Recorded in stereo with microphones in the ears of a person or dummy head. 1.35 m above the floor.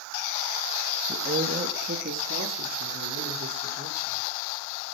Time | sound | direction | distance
1.1 | a woman speaking | 45° right (ahead or behind) | 1.5 m